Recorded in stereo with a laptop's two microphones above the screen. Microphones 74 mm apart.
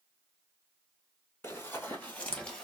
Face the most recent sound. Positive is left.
turn(degrees=15)  # may be behind; listen again after turning